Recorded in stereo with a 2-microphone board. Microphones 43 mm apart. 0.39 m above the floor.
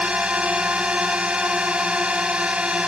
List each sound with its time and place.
0.0 s a drone: 25° right (ahead or behind)